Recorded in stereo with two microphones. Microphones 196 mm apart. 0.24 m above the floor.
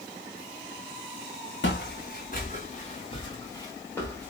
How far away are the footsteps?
About 1.6 m.